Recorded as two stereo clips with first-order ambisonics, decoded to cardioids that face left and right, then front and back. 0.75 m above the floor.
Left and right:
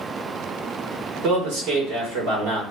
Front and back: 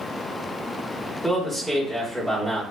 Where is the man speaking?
90° right, 1.9 m.